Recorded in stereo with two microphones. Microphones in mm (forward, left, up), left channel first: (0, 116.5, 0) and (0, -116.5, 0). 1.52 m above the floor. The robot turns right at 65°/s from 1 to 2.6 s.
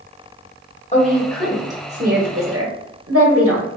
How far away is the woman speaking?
About 1.0 m.